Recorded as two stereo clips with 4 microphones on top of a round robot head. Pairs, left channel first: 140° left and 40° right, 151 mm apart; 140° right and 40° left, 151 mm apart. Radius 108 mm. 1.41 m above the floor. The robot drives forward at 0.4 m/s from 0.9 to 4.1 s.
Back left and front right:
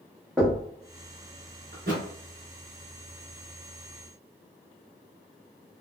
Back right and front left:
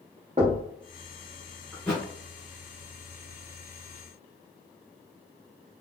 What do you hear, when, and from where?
0.4 s knocking: 45° left, 0.5 m
1.7 s a thud: 50° right, 1.6 m; by 2.0 s 55° right, 1.6 m